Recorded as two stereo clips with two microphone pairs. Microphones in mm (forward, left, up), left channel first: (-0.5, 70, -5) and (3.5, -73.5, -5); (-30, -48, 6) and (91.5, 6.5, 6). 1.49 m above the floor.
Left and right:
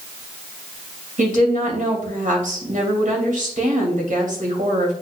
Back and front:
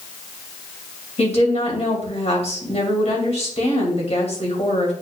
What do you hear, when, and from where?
1.2 s a woman speaking: 120° right, 3 m